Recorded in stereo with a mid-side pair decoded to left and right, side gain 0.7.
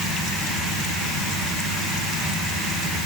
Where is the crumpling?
I don't hear crumpling.